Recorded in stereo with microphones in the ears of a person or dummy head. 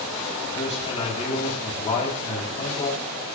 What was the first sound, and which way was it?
A man speaking, 35° left (ahead or behind).